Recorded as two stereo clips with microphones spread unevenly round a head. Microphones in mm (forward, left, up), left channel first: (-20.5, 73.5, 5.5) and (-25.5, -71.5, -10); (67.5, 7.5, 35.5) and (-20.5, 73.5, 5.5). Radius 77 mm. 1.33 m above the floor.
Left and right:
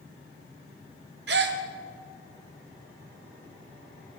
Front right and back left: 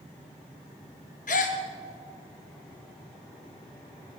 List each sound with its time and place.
1.3 s a gasp: 65° right, 1.1 m